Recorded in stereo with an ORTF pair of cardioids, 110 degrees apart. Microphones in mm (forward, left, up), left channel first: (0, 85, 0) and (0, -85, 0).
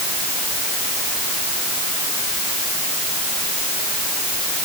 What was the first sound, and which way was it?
Only background noise.